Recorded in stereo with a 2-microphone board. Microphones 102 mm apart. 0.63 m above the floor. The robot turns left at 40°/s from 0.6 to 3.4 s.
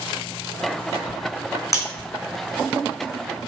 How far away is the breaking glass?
About 2.5 m.